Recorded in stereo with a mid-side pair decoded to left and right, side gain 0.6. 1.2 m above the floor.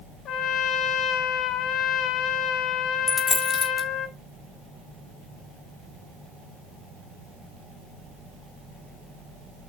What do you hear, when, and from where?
0.2 s a trumpet: 55° left, 2 m
3.1 s a dropped coin: 20° left, 3 m